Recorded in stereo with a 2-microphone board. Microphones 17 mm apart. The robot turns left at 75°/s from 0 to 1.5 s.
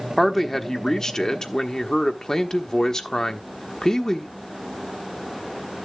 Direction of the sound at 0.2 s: 170° right.